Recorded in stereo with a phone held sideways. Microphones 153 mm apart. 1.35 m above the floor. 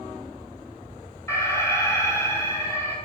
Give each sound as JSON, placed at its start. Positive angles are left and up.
{"t": 1.3, "sound": "an alarm", "side_deg": 20, "distance_m": 6.5}